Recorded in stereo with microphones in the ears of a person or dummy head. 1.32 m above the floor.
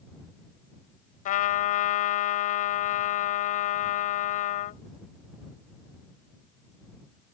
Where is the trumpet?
45° left (ahead or behind).